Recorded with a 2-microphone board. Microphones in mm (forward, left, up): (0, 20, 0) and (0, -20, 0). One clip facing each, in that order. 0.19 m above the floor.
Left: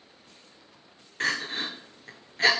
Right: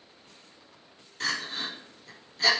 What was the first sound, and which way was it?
Crying, 50° left (ahead or behind).